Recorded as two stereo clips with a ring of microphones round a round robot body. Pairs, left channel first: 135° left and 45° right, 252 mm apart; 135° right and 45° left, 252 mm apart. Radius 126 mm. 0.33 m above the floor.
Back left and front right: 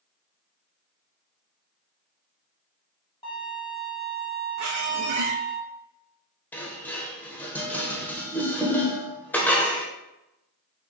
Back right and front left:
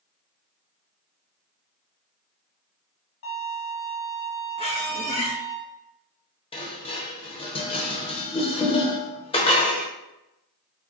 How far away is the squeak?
About 0.9 m.